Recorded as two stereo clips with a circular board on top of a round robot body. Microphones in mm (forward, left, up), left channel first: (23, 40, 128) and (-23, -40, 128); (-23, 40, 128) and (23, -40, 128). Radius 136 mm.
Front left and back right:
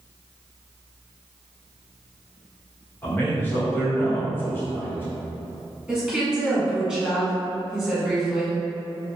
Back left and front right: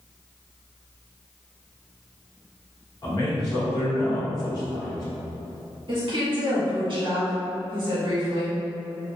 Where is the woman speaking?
40° right, 1.8 m.